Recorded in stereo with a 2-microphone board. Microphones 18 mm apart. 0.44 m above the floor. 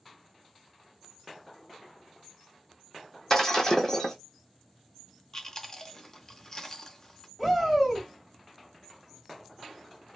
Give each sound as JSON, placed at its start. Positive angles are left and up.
{"t": 3.3, "sound": "breaking glass", "side_deg": 25, "distance_m": 0.8}
{"t": 5.3, "sound": "chewing", "side_deg": 30, "distance_m": 0.6}
{"t": 7.4, "sound": "a shout", "side_deg": 5, "distance_m": 1.2}